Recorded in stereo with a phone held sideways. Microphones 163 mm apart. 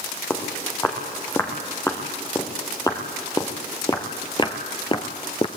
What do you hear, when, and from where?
0.3 s footsteps: 15° left (ahead or behind), 3.5 m; by 5.5 s 35° left (ahead or behind), 1.0 m